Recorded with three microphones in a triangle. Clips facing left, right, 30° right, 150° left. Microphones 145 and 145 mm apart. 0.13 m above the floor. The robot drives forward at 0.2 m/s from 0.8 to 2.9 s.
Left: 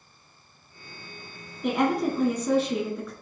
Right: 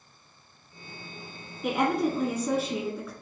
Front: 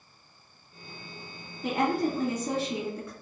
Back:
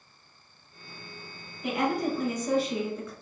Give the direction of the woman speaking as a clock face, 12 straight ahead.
12 o'clock.